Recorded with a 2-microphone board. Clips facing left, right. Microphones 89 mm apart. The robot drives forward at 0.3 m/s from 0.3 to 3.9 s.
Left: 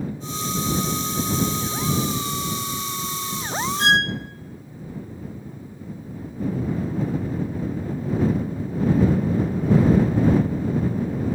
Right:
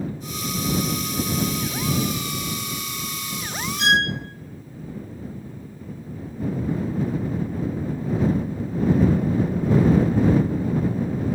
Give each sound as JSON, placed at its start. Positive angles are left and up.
{"t": 3.8, "sound": "a violin", "side_deg": 40, "distance_m": 0.8}